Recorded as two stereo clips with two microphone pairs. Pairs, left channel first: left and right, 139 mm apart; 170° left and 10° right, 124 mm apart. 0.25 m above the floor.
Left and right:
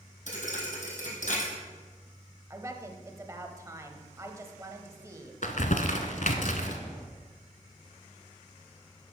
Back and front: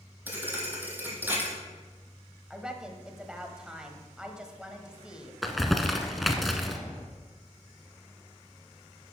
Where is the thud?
65° left, 1.9 m.